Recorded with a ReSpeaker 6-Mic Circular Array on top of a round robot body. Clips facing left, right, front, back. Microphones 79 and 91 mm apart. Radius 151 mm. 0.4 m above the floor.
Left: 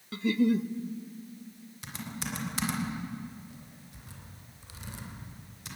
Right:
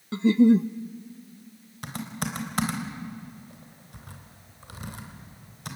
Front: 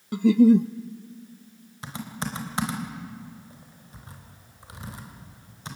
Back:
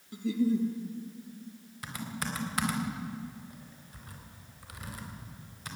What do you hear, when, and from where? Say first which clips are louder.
0.1 s a giggle: right 8 dB, front 12 dB; 30° right, 0.5 m
1.8 s typing on a keyboard: right 6 dB, front 3 dB; 60° right, 3.5 m